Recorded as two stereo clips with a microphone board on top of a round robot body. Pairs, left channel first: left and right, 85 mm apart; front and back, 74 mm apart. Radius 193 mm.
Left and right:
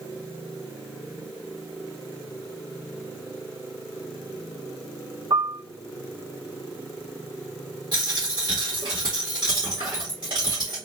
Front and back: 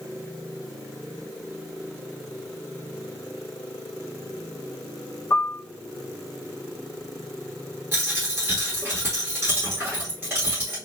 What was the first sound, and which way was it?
A piano, 50° right.